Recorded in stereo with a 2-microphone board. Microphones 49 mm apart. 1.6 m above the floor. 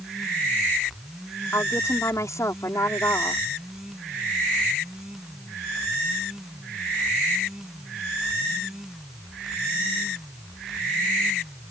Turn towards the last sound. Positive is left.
turn(degrees=80)